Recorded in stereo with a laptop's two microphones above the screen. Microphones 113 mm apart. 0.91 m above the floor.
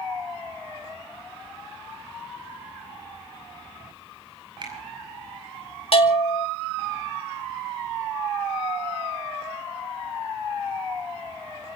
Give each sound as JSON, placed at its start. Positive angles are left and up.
{"t": 4.6, "sound": "a finger snap", "side_deg": -45, "distance_m": 5.5}
{"t": 5.9, "sound": "a bell", "side_deg": 55, "distance_m": 2.0}